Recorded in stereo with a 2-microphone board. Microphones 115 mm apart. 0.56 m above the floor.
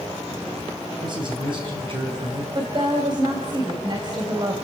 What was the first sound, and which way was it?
A man speaking, 40° right (ahead or behind).